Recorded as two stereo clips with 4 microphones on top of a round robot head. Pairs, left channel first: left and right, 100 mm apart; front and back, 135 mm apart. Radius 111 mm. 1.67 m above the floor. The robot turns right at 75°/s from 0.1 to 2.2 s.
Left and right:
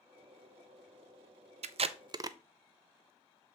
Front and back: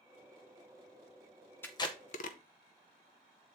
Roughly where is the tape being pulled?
Right.